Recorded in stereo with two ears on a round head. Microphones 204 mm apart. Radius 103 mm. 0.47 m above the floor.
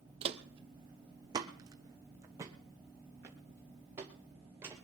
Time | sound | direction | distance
0.2 | footsteps | 30° right (ahead or behind) | 0.8 m